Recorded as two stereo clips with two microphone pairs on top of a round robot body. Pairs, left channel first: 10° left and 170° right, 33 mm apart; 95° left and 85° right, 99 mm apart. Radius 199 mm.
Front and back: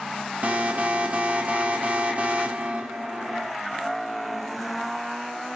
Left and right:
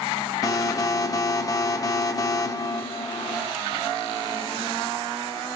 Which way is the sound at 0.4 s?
145° left.